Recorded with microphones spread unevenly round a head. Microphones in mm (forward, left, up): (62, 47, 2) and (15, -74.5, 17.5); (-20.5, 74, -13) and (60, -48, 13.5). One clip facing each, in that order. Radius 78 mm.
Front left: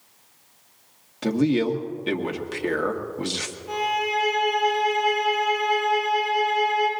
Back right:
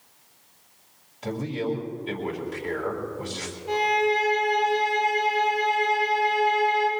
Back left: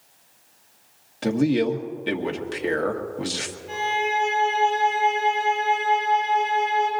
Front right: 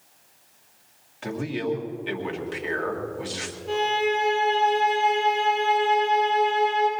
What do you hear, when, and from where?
1.2 s a man speaking: 80° left, 1.6 m
3.7 s a violin: 55° right, 6.5 m